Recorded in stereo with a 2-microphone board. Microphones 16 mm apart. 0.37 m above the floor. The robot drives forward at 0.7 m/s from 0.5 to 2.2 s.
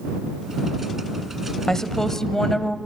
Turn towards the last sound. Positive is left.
turn(degrees=30)  # may be behind; listen again after turning